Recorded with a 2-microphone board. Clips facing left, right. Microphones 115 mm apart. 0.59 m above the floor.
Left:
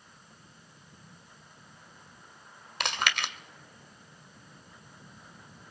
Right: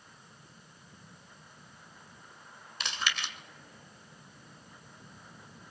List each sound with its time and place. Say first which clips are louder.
2.8 s chewing: left 5 dB; 65° left (ahead or behind), 1.8 m